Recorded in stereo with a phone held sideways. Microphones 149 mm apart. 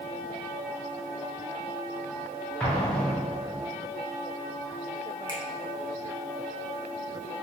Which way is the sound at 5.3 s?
30° left (ahead or behind).